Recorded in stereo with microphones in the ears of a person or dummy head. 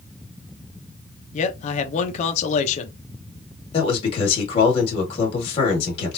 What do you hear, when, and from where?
1.3 s a man speaking: 45° left (ahead or behind), 0.8 m
3.7 s a man speaking: 35° left (ahead or behind), 2 m